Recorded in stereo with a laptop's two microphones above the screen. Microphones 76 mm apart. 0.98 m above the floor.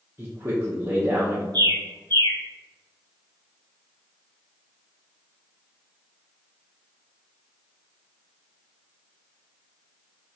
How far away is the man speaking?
About 0.7 m.